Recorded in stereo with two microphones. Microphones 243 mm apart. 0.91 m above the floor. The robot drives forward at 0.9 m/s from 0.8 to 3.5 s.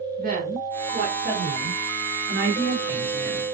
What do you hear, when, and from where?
0.2 s a woman speaking: 40° right (ahead or behind), 4 m; by 3.4 s 70° right (ahead or behind), 2.5 m